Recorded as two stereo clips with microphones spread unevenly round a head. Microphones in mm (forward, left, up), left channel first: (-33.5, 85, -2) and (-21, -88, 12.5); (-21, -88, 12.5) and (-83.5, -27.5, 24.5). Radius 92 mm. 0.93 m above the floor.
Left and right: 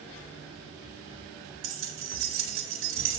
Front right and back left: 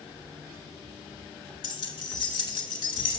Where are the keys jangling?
60° right, 2 m.